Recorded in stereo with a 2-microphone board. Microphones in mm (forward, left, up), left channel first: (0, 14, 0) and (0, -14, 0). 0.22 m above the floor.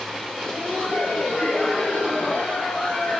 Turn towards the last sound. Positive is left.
turn(degrees=40)  # may be behind; listen again after turning